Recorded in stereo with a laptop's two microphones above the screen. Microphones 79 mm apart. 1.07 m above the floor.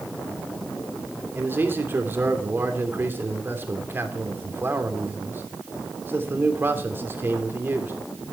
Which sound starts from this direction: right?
A man speaking, at 1.4 s.